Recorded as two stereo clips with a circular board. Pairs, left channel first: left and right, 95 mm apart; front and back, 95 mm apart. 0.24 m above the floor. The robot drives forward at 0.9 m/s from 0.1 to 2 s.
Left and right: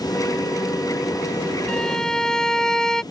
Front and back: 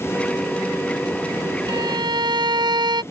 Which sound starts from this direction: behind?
A violin, at 1.7 s.